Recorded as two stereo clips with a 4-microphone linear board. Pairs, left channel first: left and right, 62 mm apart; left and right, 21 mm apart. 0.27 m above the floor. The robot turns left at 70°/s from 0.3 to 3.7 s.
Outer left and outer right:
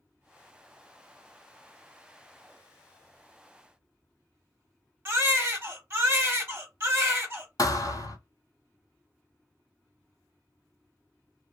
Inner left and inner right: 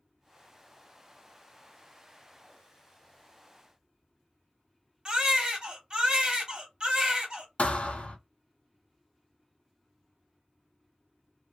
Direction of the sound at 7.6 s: 65° left (ahead or behind).